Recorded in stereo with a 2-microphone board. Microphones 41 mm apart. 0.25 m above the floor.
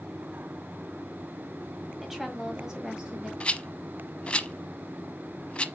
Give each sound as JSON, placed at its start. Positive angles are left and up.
{"t": 2.0, "sound": "a woman speaking", "side_deg": -5, "distance_m": 1.9}
{"t": 3.4, "sound": "a rattle", "side_deg": 25, "distance_m": 0.6}